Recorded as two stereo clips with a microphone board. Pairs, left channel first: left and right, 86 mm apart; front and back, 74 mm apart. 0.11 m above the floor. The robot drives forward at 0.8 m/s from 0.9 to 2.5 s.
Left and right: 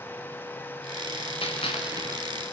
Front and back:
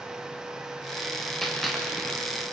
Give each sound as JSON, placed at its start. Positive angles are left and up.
{"t": 1.4, "sound": "a gunshot", "azimuth_deg": 90, "distance_m": 3.5}